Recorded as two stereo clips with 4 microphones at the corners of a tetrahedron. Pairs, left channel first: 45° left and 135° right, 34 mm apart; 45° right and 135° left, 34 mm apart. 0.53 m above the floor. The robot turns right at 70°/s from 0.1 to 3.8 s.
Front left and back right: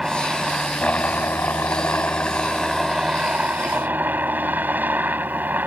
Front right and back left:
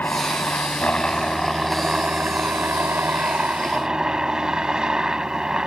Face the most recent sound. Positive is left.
turn(degrees=-160)